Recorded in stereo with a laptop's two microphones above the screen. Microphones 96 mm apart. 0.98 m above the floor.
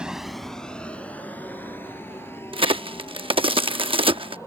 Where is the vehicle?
10° right (ahead or behind); by 4.5 s 30° left (ahead or behind).